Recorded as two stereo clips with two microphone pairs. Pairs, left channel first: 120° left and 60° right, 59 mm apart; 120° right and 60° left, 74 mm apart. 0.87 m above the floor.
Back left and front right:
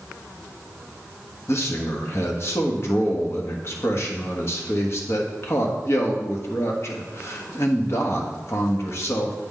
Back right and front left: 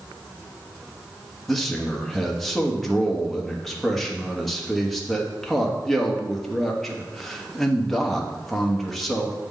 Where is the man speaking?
155° left, 1.1 m.